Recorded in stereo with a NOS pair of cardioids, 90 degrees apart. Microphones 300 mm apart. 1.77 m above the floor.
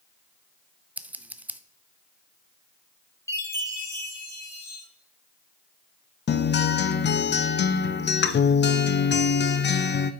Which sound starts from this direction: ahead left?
A guitar, at 6.3 s.